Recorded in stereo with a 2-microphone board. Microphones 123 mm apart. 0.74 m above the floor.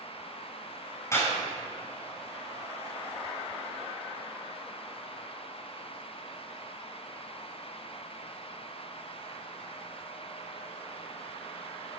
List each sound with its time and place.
1.1 s a clap: 25° left (ahead or behind), 6 m